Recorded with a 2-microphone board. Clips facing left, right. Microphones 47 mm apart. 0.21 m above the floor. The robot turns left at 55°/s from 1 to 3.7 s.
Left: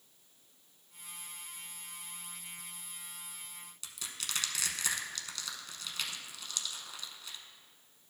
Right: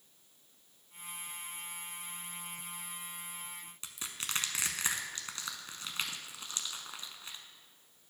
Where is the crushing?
35° right (ahead or behind), 0.7 m.